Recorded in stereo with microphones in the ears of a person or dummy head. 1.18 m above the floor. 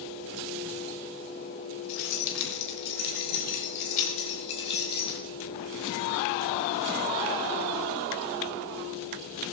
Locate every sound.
1.9 s keys jangling: 85° left, 3.5 m; by 5.2 s 25° left (ahead or behind), 5.5 m